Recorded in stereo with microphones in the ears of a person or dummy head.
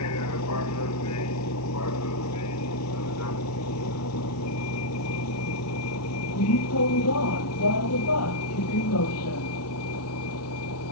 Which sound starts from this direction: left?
A vehicle, at 0.0 s.